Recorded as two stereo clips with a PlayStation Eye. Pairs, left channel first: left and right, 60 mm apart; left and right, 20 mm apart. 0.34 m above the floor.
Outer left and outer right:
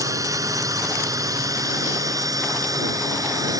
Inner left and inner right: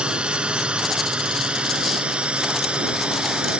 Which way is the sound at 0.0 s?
65° right (ahead or behind).